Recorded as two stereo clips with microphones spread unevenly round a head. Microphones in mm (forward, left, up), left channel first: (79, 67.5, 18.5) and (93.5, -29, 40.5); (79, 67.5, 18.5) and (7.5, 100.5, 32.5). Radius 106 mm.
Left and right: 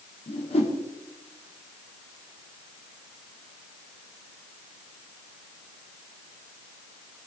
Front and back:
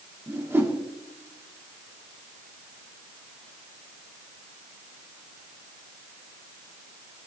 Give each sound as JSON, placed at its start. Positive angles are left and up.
{"t": 0.3, "sound": "a whoosh", "azimuth_deg": 95, "distance_m": 2.5}